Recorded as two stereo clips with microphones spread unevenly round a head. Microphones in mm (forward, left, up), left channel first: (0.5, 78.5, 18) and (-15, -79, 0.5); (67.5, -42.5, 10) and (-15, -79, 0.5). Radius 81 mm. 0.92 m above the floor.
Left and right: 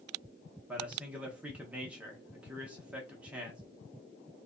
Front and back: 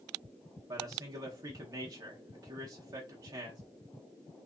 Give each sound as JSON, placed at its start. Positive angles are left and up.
{"t": 0.7, "sound": "a man speaking", "azimuth_deg": -170, "distance_m": 0.6}